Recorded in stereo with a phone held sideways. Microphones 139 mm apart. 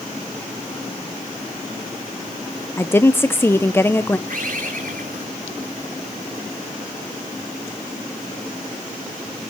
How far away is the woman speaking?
About 0.6 m.